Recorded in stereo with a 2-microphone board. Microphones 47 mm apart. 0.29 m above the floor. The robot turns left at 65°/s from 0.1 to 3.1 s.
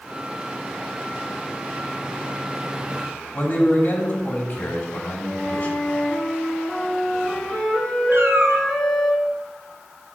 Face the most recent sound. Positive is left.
turn(degrees=-65)  # may be behind; listen again after turning